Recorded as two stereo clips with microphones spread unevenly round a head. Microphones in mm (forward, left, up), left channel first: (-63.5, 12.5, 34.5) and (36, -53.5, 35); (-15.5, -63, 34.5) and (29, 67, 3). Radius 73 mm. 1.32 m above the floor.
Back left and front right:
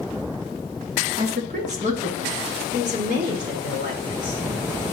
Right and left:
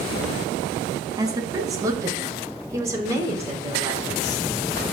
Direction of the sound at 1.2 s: 5° left.